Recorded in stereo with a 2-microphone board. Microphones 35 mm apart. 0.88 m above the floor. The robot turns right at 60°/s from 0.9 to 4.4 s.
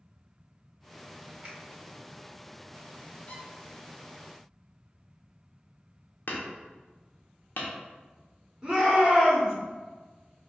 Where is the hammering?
65° left (ahead or behind), 0.8 m.